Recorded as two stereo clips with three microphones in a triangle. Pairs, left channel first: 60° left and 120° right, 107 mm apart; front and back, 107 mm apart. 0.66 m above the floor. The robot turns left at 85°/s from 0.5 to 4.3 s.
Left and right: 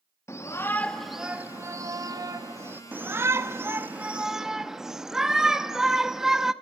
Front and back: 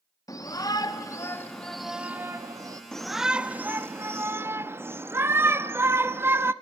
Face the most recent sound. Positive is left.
turn(degrees=160)